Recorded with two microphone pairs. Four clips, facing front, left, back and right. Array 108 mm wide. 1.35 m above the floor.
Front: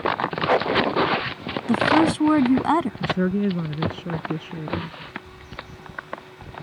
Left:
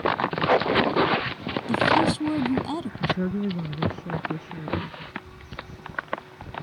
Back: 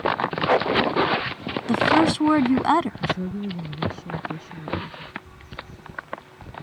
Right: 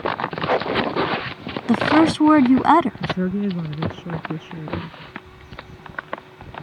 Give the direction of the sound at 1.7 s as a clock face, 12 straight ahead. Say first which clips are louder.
Right 6 dB, even; 3 o'clock.